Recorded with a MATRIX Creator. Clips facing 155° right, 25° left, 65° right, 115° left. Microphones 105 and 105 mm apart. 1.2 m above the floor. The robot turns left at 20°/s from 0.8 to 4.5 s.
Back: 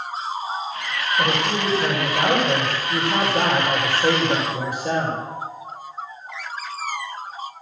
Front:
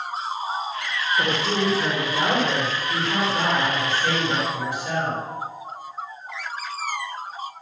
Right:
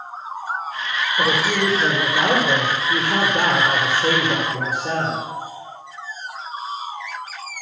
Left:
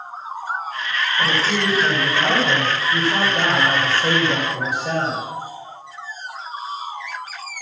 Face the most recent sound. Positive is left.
turn(degrees=-115)